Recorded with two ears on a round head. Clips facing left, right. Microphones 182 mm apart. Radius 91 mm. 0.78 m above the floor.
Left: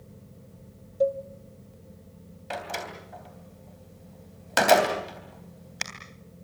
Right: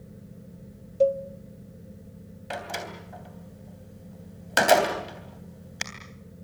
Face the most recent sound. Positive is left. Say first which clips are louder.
# even
turn(degrees=-5)  # may be behind; listen again after turning